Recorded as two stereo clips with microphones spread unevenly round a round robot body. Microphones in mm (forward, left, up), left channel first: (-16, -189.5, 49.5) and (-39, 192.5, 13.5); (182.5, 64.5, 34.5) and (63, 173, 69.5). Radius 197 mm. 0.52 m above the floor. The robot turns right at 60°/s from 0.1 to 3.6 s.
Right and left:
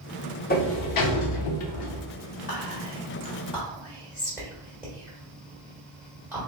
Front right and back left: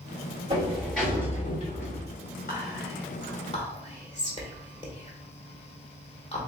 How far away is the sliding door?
About 0.7 m.